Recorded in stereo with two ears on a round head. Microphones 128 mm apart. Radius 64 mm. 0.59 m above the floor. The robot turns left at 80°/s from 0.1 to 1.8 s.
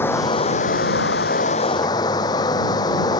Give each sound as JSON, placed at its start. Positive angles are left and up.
{"t": 0.0, "sound": "running water", "azimuth_deg": 165}